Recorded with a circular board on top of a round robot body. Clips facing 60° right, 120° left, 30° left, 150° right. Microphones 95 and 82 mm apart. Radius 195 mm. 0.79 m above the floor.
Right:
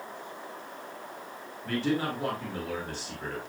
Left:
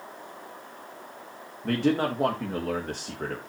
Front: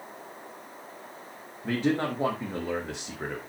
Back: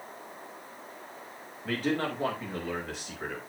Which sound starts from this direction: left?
A man speaking, at 1.6 s.